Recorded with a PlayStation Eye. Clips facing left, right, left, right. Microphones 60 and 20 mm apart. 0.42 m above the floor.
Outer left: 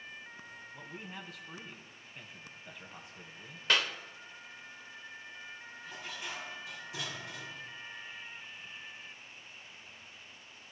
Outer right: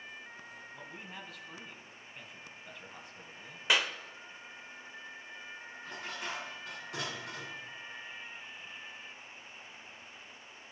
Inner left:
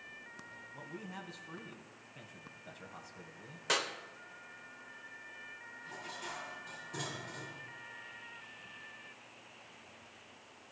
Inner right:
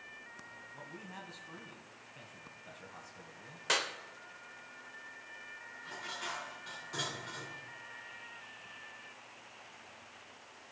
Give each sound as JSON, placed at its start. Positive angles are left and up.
{"t": 0.7, "sound": "a man speaking", "side_deg": 0, "distance_m": 2.5}
{"t": 3.7, "sound": "a clap", "side_deg": -15, "distance_m": 0.9}
{"t": 5.8, "sound": "dishes clattering", "side_deg": -65, "distance_m": 4.0}